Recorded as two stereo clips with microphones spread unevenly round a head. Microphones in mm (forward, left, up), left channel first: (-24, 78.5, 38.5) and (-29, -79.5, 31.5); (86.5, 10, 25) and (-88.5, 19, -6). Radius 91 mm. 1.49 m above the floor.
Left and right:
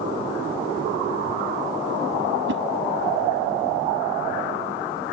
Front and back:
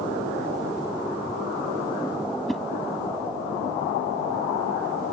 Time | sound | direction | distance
2.5 | a whoosh | 90° right | ?